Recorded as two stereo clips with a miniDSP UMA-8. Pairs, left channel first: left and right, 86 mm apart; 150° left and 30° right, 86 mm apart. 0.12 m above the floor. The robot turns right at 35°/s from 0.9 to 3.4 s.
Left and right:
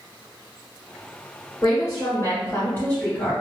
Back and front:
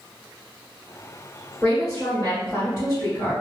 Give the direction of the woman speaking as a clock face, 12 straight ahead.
9 o'clock.